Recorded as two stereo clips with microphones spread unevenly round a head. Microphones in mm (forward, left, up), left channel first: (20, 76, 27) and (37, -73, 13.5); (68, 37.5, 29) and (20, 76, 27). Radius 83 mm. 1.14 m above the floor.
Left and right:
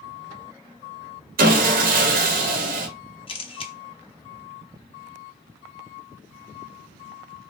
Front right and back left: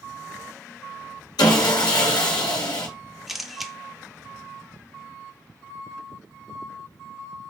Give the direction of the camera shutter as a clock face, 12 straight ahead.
10 o'clock.